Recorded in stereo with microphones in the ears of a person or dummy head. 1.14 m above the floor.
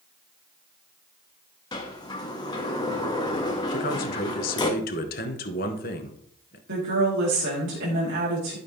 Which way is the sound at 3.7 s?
45° left (ahead or behind).